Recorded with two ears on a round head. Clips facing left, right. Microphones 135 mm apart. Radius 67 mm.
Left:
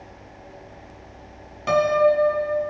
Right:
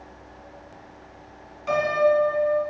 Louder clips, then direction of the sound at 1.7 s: Left 3 dB; 65° left (ahead or behind).